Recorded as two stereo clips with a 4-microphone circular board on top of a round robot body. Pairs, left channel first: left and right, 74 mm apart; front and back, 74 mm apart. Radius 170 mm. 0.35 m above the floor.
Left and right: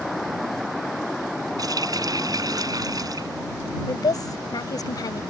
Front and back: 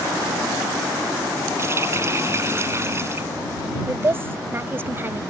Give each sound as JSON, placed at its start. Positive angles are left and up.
{"t": 1.6, "sound": "a running tap", "azimuth_deg": -125}
{"t": 3.9, "sound": "a woman speaking", "azimuth_deg": 120}